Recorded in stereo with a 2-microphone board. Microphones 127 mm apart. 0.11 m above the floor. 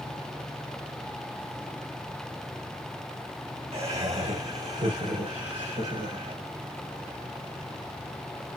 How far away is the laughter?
About 2.5 m.